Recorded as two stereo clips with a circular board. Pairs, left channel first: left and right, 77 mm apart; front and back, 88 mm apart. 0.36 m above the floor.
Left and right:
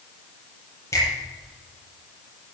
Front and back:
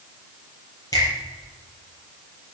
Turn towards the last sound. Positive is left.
turn(degrees=45)